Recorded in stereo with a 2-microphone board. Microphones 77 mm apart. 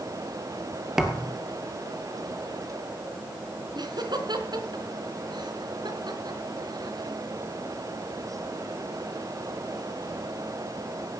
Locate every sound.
1.0 s a thud: 5° right (ahead or behind), 2.5 m
3.8 s laughter: 70° right (ahead or behind), 4 m